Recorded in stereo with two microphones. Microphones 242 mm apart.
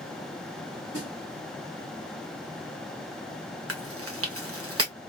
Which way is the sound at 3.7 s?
65° right (ahead or behind).